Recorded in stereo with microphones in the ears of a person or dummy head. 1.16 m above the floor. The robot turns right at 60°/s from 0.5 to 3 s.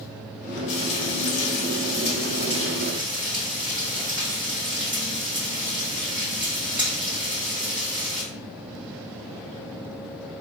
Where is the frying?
60° left, 1.6 m; by 8.2 s 160° right, 1.6 m.